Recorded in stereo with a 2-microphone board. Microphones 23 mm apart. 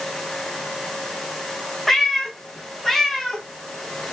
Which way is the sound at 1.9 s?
10° left (ahead or behind).